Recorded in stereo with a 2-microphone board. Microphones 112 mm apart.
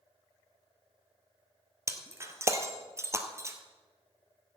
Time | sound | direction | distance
1.9 | breaking glass | 25° right (ahead or behind) | 1.1 m